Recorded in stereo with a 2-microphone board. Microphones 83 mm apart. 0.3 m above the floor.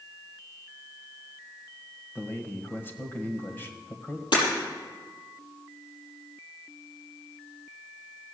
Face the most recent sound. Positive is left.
turn(degrees=80)